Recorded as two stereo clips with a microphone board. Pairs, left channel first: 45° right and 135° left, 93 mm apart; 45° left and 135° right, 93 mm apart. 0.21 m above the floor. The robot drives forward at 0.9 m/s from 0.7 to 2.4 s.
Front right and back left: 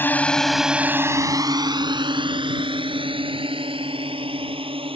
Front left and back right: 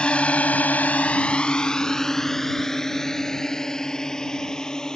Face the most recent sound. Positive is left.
turn(degrees=130)